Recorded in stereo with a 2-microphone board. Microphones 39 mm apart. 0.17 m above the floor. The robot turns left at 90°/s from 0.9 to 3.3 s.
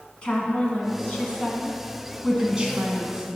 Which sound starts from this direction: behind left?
A woman speaking, at 0.2 s.